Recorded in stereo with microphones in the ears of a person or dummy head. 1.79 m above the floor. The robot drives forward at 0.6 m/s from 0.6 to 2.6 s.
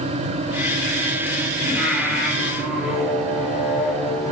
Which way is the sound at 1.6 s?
5° right (ahead or behind).